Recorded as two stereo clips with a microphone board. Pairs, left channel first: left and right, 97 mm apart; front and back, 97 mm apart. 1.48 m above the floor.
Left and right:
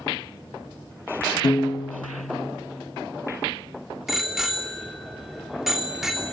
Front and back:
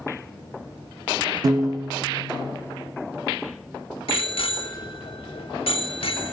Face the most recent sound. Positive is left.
turn(degrees=-5)